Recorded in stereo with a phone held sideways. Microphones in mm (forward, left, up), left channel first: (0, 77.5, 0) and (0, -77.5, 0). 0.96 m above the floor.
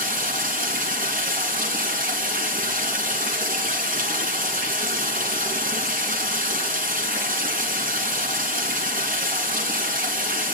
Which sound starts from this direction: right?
Running water, at 0.0 s.